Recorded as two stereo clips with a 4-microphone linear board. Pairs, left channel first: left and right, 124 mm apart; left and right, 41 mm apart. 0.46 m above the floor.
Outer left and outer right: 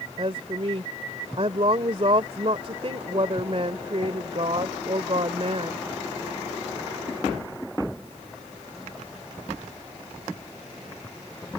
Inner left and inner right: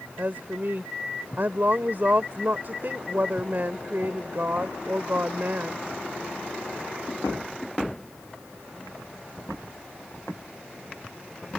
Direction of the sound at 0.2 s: 55° right (ahead or behind).